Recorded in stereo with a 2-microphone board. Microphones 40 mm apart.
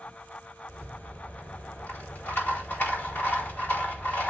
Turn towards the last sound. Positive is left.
turn(degrees=70)  # may be behind; listen again after turning